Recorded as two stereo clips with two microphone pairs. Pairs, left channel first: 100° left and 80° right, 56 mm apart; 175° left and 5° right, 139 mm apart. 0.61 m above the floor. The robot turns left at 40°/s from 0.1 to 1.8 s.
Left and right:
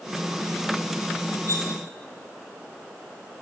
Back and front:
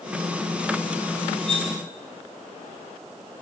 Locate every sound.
1.5 s cutlery clinking: 95° right, 3 m; by 1.7 s 105° right, 3 m